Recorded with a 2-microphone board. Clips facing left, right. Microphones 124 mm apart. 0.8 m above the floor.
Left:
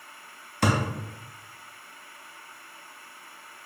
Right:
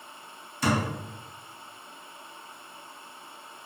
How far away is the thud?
About 0.6 m.